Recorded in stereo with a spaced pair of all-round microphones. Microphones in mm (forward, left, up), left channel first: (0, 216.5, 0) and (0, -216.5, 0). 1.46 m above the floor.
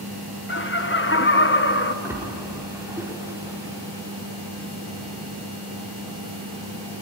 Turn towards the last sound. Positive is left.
turn(degrees=-5)  # may be behind; listen again after turning